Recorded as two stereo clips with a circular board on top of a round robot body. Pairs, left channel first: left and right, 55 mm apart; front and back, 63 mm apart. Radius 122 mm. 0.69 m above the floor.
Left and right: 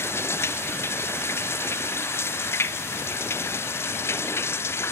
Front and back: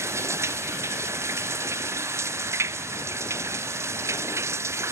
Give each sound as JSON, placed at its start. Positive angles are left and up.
{"t": 0.0, "sound": "running water", "azimuth_deg": 135}